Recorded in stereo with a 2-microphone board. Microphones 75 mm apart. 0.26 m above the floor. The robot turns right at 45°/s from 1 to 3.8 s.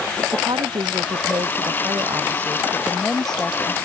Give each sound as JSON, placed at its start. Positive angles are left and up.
{"t": 0.3, "sound": "a woman speaking", "azimuth_deg": -95}